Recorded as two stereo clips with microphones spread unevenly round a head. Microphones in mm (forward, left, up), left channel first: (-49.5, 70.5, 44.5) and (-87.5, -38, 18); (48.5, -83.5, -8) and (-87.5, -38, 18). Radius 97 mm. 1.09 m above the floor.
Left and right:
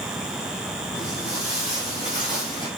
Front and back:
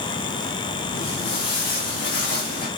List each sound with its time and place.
0.9 s footsteps: 5° right, 6 m; by 2.7 s 5° left, 5 m